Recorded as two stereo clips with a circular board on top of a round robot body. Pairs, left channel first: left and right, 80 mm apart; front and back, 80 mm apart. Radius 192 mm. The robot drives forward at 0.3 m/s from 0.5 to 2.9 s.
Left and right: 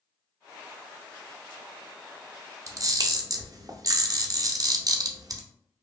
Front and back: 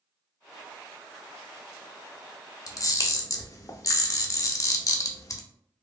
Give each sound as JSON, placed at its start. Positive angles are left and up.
{"t": 2.7, "sound": "a camera shutter", "azimuth_deg": -45, "distance_m": 0.6}